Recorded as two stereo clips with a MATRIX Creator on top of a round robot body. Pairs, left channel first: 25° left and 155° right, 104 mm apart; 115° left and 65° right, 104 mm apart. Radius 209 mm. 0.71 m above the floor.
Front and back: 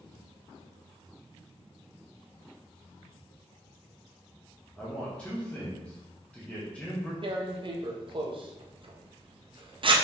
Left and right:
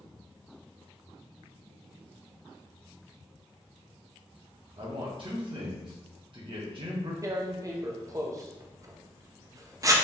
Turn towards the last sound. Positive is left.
turn(degrees=-125)